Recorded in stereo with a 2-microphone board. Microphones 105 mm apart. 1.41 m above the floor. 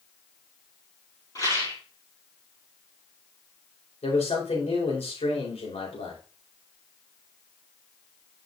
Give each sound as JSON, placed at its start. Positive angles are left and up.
{"t": 1.4, "sound": "a rattle", "side_deg": 35, "distance_m": 5.5}
{"t": 4.0, "sound": "a man speaking", "side_deg": 85, "distance_m": 4.0}